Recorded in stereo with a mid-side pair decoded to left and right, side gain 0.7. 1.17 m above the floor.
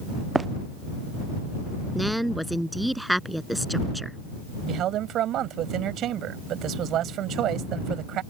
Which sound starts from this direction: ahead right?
A man speaking, at 4.7 s.